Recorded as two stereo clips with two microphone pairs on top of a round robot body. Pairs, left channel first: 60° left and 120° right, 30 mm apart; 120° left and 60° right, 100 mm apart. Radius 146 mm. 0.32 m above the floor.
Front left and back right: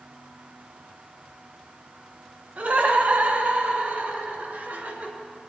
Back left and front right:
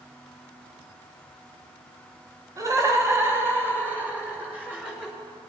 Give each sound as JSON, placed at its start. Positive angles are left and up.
{"t": 2.6, "sound": "laughter", "azimuth_deg": -115, "distance_m": 2.5}